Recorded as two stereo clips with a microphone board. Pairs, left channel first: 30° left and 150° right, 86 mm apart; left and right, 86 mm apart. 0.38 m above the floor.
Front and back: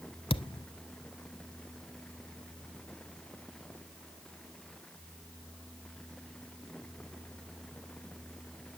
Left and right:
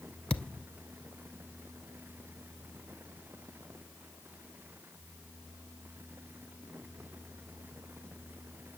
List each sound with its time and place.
0.3 s a thud: 10° left, 0.6 m